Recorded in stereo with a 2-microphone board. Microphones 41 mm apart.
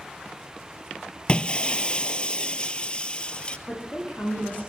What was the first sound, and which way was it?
Breaking glass, 25° left (ahead or behind).